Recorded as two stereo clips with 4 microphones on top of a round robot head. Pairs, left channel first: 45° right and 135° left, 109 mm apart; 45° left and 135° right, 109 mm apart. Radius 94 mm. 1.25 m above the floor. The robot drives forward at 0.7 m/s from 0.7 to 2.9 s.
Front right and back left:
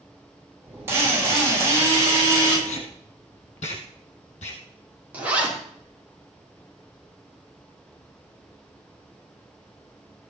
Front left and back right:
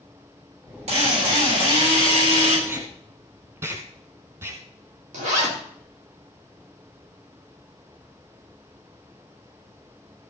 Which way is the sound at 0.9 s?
155° right.